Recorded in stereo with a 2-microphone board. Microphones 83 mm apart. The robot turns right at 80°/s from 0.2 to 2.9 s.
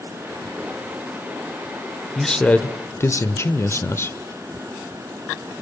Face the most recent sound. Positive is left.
turn(degrees=60)